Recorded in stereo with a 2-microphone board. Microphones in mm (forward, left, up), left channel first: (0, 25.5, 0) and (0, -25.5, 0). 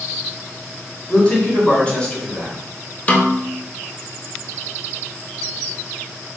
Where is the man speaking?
25° left (ahead or behind), 1.7 m.